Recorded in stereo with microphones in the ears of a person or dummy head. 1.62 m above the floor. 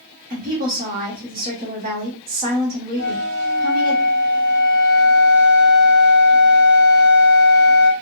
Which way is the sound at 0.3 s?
40° right (ahead or behind).